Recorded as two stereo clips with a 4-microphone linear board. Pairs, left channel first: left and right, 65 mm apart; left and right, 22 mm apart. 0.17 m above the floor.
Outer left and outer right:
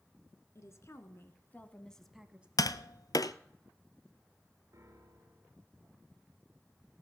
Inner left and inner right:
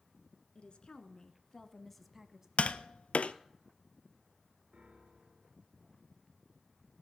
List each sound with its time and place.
0.6 s a woman speaking: 55° left (ahead or behind), 1.9 m; by 2.5 s 20° right (ahead or behind), 1.0 m
2.6 s tapping: 75° left (ahead or behind), 0.6 m
4.7 s a piano: 60° right (ahead or behind), 2.0 m